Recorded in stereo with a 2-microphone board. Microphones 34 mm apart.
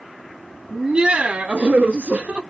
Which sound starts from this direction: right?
Laughter, at 0.7 s.